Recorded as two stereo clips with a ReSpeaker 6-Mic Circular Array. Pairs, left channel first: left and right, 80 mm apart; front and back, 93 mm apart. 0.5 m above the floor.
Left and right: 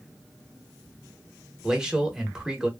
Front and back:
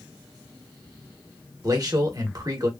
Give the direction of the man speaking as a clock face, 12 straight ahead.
6 o'clock.